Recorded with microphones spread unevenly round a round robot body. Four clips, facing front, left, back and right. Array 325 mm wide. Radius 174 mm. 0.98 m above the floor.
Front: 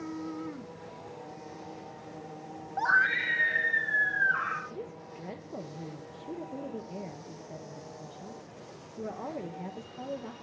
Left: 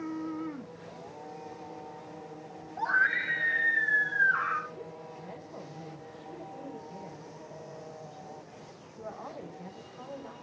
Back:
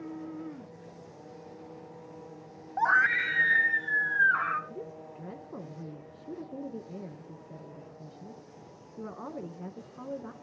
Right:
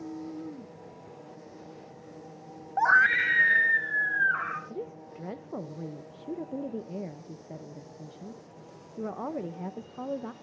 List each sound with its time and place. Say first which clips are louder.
2.8 s a scream: right 6 dB, back 1 dB; 75° right, 0.5 m; by 4.6 s 160° right, 0.9 m
4.7 s a woman speaking: right 4 dB, even; 95° right, 1.0 m